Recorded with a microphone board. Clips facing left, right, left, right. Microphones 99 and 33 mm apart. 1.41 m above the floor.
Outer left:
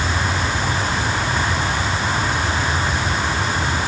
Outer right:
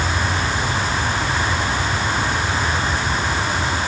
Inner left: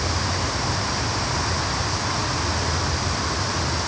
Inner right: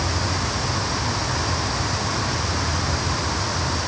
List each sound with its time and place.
Only background noise.